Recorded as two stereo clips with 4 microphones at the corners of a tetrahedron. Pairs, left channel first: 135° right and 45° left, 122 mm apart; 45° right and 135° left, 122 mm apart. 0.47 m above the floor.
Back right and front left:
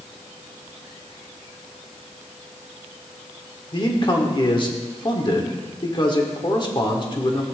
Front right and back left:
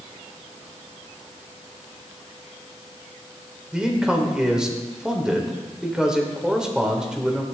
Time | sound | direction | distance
3.7 | a man speaking | 145° right | 1.7 m